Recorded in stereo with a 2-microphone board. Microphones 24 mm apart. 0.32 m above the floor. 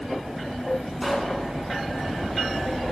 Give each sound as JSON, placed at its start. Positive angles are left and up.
{"t": 1.0, "sound": "a pop", "side_deg": -5, "distance_m": 2.5}